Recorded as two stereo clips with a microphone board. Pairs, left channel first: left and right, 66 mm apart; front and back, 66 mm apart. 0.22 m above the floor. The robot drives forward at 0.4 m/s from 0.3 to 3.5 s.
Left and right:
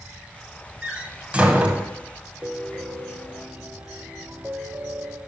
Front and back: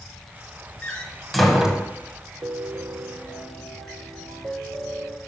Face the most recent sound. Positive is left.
turn(degrees=-165)